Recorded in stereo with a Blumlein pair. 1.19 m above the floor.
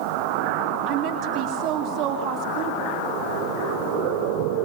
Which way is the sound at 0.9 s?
35° right.